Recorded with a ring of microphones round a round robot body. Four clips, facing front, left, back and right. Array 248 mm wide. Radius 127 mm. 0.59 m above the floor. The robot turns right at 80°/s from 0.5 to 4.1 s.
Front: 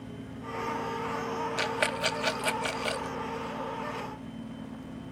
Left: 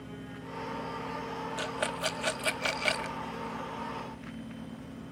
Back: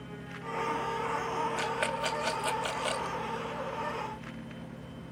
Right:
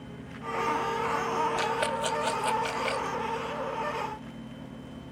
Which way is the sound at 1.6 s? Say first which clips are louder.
Right 5 dB, front 2 dB; 25° right.